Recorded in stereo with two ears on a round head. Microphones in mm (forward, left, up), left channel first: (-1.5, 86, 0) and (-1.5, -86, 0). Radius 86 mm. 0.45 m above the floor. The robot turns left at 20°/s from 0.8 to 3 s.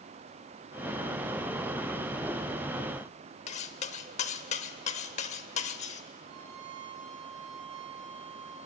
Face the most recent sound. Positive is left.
turn(degrees=-40)  # may be behind; listen again after turning